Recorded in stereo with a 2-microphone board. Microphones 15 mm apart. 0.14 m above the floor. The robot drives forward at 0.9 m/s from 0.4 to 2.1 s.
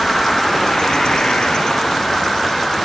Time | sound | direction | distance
0.0 | an insect | 30° left (ahead or behind) | 0.9 m